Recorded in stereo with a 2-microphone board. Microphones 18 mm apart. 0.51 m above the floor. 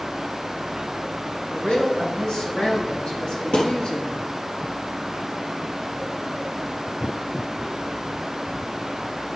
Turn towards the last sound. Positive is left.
turn(degrees=80)